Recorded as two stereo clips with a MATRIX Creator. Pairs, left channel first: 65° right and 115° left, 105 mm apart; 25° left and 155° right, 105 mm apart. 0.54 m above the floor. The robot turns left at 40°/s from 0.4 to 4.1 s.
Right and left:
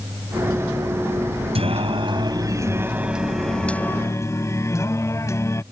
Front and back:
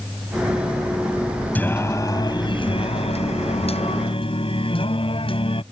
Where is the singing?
95° left; by 5.6 s 5° right.